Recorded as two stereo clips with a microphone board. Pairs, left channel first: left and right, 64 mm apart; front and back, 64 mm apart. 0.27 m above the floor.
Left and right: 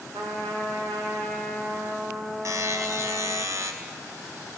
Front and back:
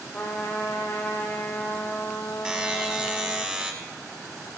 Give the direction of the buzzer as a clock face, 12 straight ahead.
4 o'clock.